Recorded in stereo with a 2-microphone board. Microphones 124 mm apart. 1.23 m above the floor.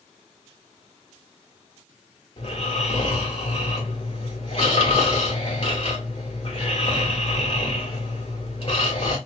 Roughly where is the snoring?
Left.